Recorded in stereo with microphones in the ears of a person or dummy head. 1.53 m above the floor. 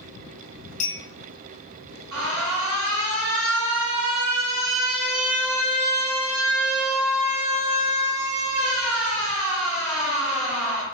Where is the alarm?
85° right, 2.0 m.